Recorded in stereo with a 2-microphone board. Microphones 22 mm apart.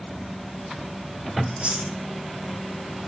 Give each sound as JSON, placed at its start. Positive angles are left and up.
{"t": 1.4, "sound": "chewing", "side_deg": -60, "distance_m": 5.5}